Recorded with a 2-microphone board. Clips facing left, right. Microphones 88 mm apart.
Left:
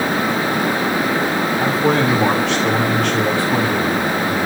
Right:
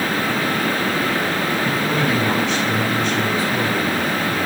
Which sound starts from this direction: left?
A man speaking, at 1.6 s.